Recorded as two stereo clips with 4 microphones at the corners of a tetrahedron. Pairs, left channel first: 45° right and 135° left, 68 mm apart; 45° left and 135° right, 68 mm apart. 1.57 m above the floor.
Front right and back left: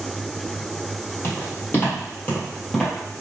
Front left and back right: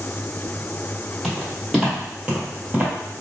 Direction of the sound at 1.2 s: 45° right.